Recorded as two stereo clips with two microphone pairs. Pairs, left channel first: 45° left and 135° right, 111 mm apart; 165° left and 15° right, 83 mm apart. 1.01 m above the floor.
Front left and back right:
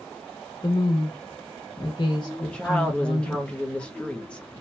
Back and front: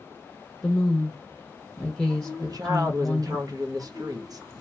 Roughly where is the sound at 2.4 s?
Ahead right.